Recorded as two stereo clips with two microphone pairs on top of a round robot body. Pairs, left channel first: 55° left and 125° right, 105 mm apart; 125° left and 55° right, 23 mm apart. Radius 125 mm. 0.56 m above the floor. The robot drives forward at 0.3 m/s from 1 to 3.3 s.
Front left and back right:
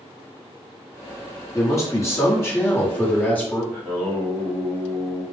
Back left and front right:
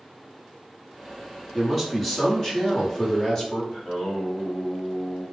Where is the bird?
I don't hear a bird.